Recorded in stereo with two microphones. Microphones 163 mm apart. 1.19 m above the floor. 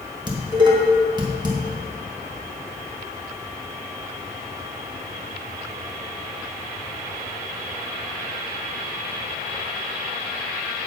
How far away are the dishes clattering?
About 1.2 m.